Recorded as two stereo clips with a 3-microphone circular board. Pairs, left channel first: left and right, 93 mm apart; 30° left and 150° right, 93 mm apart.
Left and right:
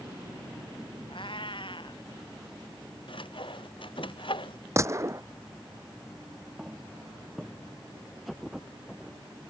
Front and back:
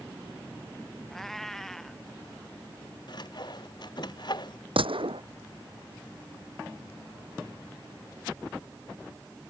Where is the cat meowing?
115° left.